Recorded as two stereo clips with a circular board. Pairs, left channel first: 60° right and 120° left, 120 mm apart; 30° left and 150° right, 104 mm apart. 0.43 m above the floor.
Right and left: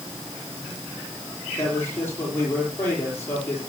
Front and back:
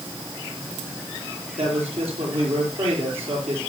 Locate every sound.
1.6 s a man speaking: 130° right, 10 m